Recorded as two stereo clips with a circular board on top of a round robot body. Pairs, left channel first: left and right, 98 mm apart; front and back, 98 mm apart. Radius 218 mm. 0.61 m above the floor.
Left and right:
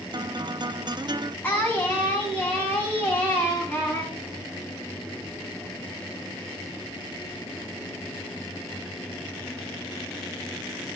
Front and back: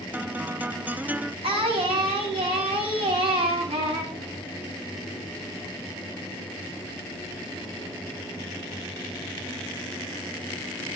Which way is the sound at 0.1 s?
110° right.